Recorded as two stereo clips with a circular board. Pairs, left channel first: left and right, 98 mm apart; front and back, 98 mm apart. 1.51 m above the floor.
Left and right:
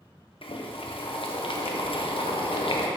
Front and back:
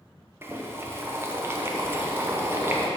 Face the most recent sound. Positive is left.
turn(degrees=115)